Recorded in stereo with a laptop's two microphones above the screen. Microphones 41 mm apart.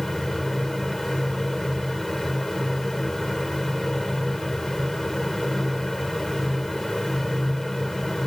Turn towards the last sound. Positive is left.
turn(degrees=5)  # may be behind; listen again after turning